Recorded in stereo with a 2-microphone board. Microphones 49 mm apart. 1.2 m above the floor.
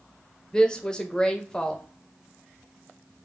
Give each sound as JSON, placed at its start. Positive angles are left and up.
{"t": 0.5, "sound": "a woman speaking", "side_deg": 15, "distance_m": 0.9}